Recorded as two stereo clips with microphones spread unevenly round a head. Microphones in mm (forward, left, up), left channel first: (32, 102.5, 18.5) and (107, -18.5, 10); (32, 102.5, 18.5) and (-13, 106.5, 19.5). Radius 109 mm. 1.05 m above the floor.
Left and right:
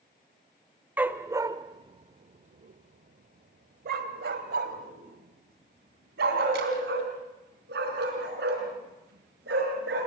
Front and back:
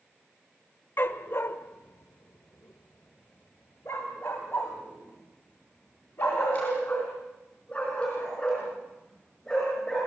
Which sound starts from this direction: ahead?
A dog barking, at 1.0 s.